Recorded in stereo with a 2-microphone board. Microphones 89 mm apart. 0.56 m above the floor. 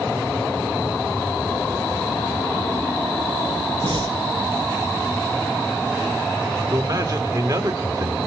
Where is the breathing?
70° right (ahead or behind), 3 m.